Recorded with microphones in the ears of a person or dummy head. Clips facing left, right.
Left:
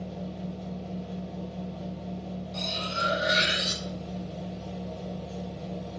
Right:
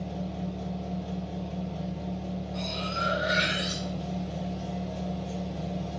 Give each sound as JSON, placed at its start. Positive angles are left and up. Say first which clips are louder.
{"t": 0.0, "sound": "a machine running", "louder": "right 2 dB", "side_deg": -65, "distance_m": 1.3}
{"t": 2.5, "sound": "cutlery clinking", "louder": "right 1 dB", "side_deg": 40, "distance_m": 1.8}